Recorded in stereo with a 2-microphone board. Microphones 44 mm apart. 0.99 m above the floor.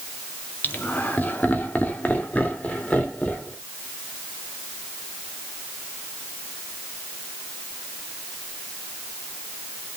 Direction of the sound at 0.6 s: 50° left (ahead or behind).